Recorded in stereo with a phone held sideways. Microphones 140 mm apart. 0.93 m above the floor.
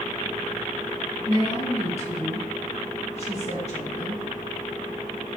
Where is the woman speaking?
50° left (ahead or behind), 1.2 m.